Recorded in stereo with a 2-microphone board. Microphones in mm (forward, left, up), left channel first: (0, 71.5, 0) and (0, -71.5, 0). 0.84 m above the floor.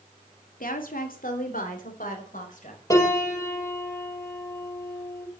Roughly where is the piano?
Left.